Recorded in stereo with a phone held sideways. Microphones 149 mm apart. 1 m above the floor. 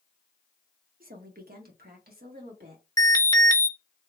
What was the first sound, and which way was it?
A woman speaking, 65° right (ahead or behind).